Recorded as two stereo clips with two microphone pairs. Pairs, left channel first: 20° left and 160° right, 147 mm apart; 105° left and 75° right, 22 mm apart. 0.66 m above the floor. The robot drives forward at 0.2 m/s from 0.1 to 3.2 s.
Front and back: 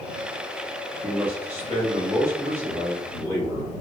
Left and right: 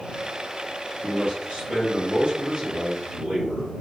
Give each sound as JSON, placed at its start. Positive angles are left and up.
{"t": 1.0, "sound": "a man speaking", "azimuth_deg": -80, "distance_m": 1.7}